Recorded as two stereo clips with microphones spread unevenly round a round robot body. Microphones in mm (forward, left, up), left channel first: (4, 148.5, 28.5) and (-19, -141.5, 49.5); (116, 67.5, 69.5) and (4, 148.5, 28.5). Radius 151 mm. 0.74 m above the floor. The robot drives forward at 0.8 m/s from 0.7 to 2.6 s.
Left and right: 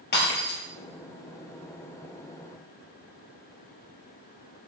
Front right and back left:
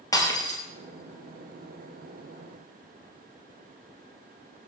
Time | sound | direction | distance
0.1 | breaking glass | 25° left | 4 m